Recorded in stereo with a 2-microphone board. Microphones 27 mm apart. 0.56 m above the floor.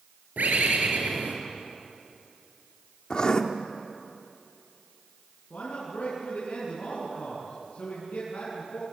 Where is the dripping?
No dripping in this recording.